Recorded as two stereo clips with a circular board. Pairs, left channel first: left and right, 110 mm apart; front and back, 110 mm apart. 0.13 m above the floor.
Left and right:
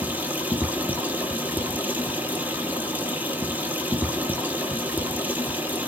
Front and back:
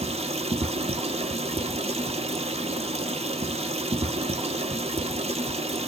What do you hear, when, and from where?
0.0 s running water: 165° right, 0.9 m